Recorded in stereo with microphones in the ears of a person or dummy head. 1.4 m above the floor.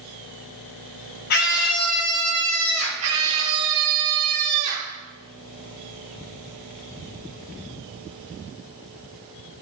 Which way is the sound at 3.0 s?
35° right (ahead or behind).